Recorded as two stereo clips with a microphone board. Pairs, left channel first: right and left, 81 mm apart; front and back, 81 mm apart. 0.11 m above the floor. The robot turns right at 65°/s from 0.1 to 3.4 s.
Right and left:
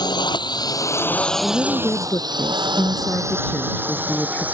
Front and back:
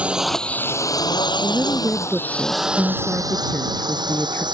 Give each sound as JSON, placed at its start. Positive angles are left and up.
{"t": 0.0, "sound": "a drone", "azimuth_deg": -105}
{"t": 1.4, "sound": "a woman speaking", "azimuth_deg": -160}